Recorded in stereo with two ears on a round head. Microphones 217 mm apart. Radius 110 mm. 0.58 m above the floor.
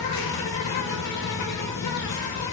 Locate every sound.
0.0 s an insect: 80° left, 1.1 m